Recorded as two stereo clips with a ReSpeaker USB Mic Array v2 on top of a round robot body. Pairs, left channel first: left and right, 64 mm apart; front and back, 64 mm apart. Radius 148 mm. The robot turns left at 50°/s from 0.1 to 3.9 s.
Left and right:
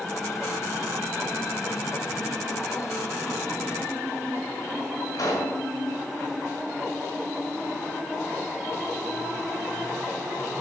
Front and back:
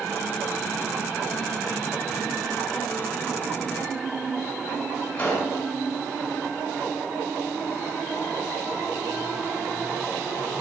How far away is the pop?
About 2.5 m.